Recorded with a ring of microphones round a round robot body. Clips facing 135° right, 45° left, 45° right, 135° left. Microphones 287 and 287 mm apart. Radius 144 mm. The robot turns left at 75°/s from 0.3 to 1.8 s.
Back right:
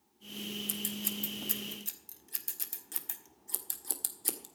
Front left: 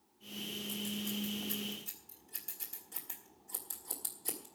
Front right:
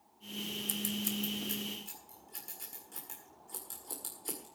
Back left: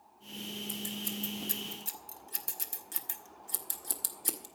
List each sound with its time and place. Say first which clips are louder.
0.7 s scissors: front left 1 dB, front right 5 dB; 100° right, 1.7 m; by 4.5 s straight behind, 1.7 m